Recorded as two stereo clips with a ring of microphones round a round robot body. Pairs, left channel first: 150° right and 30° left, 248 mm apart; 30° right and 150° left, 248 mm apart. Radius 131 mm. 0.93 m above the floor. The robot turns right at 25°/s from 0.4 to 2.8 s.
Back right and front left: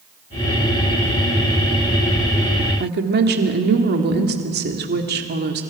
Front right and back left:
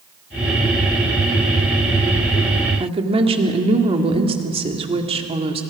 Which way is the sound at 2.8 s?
80° left.